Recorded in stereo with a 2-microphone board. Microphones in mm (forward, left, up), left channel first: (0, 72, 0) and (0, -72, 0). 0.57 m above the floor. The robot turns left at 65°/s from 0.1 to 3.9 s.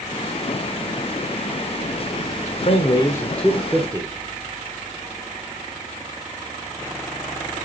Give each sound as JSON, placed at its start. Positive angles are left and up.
{"t": 2.6, "sound": "a man speaking", "azimuth_deg": 55, "distance_m": 1.3}